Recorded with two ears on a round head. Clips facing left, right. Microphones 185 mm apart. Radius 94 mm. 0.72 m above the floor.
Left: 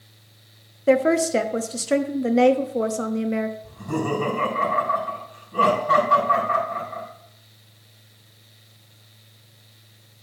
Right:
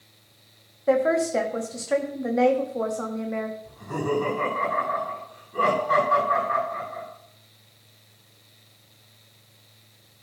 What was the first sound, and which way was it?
A woman speaking, 35° left (ahead or behind).